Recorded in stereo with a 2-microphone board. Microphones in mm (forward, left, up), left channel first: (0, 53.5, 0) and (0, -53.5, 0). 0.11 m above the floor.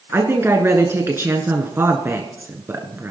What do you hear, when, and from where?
0.1 s a woman speaking: 25° right (ahead or behind), 1.4 m